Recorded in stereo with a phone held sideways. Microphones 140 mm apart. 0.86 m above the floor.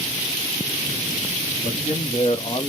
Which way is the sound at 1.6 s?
60° left (ahead or behind).